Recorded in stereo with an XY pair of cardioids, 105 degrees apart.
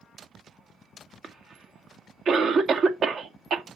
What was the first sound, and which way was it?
A cough, 55° right.